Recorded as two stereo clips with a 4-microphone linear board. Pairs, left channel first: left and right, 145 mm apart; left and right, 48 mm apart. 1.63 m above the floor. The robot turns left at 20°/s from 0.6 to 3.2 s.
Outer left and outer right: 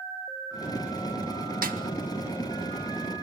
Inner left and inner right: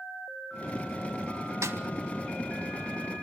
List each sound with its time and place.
1.6 s a snare drum: 80° right, 1.8 m; by 1.8 s 85° right, 1.8 m